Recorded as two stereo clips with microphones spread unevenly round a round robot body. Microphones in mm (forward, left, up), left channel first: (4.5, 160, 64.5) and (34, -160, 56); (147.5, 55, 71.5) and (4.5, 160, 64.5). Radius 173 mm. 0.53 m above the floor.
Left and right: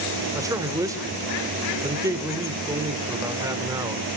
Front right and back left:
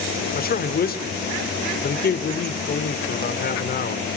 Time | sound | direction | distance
0.3 | a man speaking | 5° right | 1.7 m